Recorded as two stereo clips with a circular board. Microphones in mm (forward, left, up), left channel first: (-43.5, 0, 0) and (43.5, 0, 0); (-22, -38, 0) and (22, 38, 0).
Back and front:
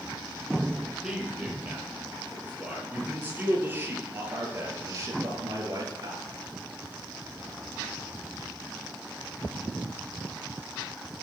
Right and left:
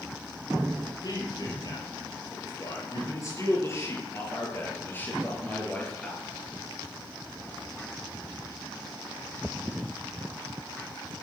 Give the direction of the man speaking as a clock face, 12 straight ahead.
3 o'clock.